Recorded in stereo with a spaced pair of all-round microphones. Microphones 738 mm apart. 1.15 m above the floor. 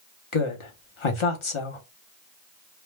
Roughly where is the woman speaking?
Left.